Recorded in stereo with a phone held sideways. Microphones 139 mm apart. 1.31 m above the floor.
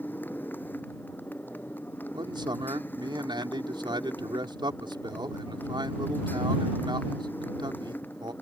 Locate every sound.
0.0 s a motorcycle: 15° left (ahead or behind)
2.1 s a man speaking: 35° right (ahead or behind)